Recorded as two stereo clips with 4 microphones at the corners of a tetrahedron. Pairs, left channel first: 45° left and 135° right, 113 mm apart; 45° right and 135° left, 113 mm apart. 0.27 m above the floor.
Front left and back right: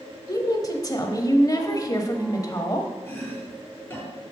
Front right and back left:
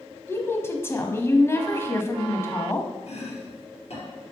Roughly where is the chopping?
Ahead right.